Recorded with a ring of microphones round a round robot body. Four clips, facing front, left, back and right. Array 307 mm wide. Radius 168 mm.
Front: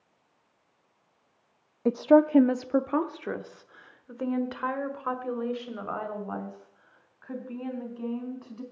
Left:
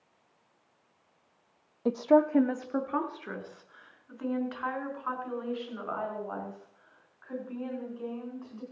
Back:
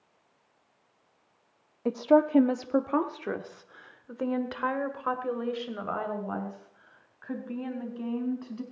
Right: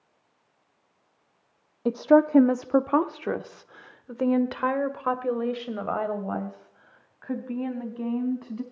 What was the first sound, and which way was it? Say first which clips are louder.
A woman speaking: right 4 dB, front 2 dB; 35° right.